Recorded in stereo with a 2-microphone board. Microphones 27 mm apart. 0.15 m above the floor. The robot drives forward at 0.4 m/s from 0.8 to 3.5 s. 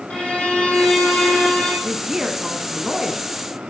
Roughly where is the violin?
Left.